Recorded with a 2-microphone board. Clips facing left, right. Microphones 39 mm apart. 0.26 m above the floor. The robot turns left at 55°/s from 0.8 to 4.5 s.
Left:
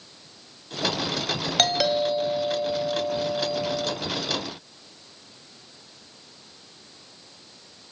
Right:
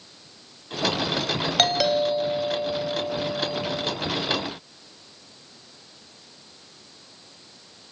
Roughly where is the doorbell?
Centre.